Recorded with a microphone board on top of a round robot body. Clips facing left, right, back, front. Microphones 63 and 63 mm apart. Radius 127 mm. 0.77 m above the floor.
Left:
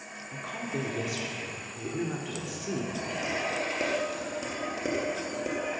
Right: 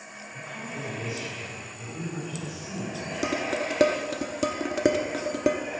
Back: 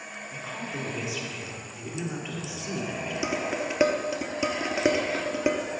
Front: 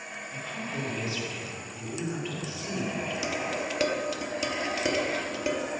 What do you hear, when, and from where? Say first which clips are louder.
0.3 s a woman speaking: left 3 dB, even; 100° left, 3 m
3.2 s dishes clattering: right 5 dB, back 5 dB; 115° right, 1.0 m